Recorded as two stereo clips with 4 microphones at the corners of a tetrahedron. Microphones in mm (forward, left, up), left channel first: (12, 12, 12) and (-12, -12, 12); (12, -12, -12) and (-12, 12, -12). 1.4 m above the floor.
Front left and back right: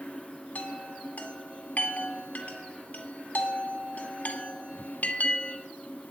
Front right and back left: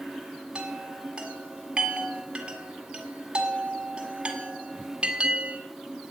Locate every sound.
0.6 s a chime: 75° left, 1.7 m